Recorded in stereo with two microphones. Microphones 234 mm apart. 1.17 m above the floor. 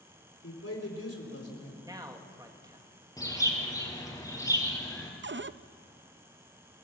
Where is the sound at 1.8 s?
15° right (ahead or behind), 2 m.